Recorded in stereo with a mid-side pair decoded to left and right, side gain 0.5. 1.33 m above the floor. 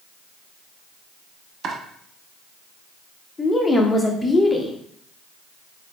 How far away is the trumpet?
No trumpet in this recording.